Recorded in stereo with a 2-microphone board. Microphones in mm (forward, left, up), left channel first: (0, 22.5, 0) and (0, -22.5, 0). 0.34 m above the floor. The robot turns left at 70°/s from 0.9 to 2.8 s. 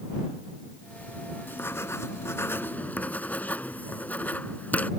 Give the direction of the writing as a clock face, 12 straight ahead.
8 o'clock.